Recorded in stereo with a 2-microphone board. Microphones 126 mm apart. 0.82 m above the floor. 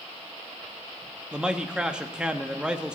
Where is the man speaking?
5° right (ahead or behind), 0.9 m.